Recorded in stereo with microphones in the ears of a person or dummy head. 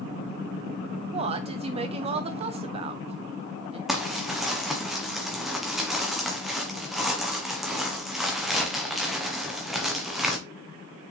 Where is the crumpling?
5° right (ahead or behind), 1.1 m.